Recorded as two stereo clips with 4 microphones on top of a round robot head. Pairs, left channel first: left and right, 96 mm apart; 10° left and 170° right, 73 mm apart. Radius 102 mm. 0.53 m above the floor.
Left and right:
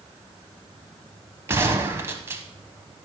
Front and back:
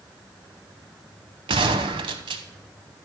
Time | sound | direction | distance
1.5 | a gunshot | 160° right | 0.6 m